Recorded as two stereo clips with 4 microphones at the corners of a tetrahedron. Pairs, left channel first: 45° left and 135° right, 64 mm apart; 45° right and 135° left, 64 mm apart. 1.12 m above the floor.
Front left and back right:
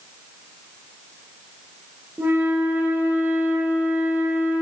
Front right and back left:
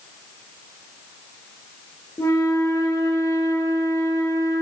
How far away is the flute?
About 0.9 m.